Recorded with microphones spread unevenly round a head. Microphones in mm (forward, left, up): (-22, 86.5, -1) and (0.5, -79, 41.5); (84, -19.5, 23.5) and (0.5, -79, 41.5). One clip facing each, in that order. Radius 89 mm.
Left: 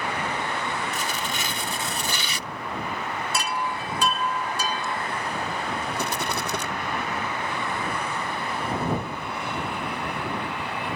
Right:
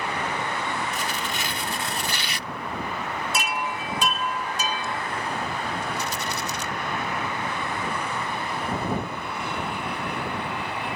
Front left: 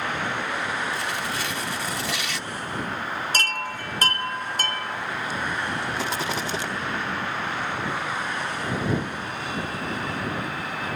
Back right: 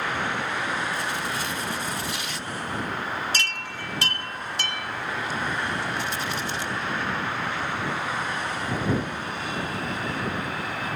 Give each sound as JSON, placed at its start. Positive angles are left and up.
{"t": 0.9, "sound": "tearing paper", "azimuth_deg": 90}
{"t": 3.3, "sound": "a chime", "azimuth_deg": -15}
{"t": 6.0, "sound": "a rattle", "azimuth_deg": 50}